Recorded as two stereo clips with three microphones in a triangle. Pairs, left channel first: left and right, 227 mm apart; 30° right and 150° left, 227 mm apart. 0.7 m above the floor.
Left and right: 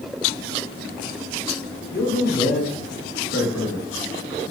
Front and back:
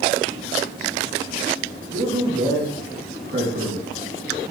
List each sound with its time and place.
1.9 s a man speaking: 110° left, 4.5 m; by 3.9 s 95° left, 6.5 m